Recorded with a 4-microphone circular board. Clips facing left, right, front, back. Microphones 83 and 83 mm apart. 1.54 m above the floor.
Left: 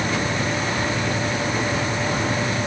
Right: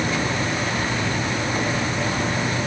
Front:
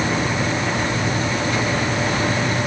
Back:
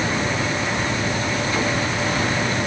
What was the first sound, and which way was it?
Only background noise.